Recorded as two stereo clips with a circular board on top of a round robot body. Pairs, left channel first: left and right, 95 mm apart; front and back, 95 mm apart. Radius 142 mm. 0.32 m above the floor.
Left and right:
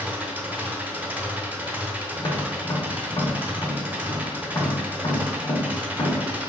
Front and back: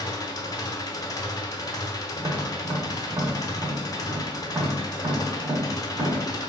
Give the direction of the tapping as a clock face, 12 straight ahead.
8 o'clock.